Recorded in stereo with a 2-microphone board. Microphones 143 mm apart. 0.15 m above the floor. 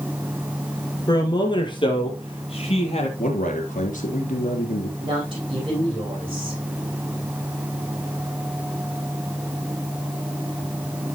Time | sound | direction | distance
1.1 | a man speaking | 30° left (ahead or behind) | 3 m
3.2 | a man speaking | 65° left (ahead or behind) | 3 m
5.0 | a woman speaking | 35° right (ahead or behind) | 9 m